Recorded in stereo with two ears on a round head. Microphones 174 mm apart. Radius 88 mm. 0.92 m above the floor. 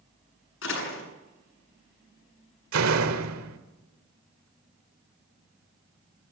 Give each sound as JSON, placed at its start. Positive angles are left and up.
{"t": 0.6, "sound": "a door slam", "side_deg": 70, "distance_m": 8.0}
{"t": 2.7, "sound": "a door slam", "side_deg": -75, "distance_m": 2.5}